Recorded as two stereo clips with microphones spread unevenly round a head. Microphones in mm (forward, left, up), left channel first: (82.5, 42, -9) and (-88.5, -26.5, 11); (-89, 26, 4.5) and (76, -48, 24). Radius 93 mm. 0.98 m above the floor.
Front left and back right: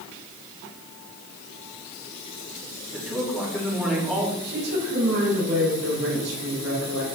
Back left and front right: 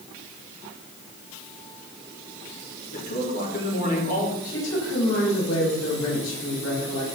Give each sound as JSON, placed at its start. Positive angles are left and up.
{"t": 2.9, "sound": "a man speaking", "azimuth_deg": 115, "distance_m": 4.0}
{"t": 4.4, "sound": "a woman speaking", "azimuth_deg": 170, "distance_m": 6.5}